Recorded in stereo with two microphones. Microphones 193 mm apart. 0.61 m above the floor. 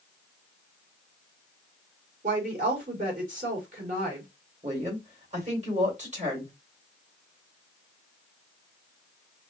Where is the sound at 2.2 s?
45° right (ahead or behind), 3 m.